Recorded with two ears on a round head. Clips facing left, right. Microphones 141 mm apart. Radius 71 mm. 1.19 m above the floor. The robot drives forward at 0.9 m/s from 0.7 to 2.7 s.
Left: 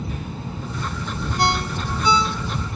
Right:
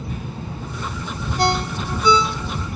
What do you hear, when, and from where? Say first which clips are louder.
1.4 s a ringtone: right 2 dB; 70° right (ahead or behind), 1.2 m; by 2.7 s 55° right (ahead or behind), 1.3 m